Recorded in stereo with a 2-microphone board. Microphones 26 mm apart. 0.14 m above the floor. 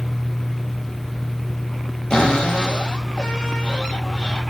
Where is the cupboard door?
40° left (ahead or behind), 8.5 m.